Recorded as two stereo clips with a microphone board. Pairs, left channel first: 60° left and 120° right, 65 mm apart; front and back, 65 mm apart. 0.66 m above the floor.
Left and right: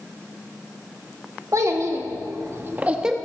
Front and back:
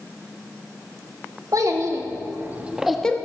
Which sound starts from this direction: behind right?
A child speaking, at 1.5 s.